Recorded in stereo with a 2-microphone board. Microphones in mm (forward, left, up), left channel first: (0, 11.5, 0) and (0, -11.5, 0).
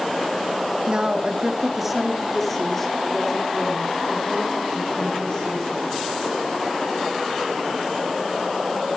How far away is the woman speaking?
About 2 m.